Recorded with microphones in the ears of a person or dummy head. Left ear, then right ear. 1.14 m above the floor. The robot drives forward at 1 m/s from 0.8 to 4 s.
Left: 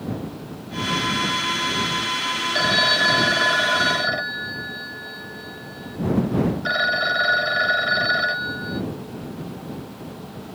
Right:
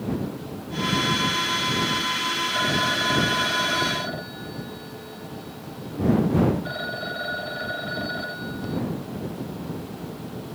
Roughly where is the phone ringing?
Left.